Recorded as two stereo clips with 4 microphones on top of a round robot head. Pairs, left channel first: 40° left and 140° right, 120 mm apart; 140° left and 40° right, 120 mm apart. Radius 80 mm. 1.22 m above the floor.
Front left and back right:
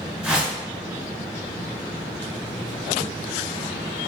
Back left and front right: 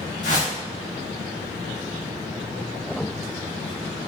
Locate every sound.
0.2 s a whoosh: 135° left, 1.7 m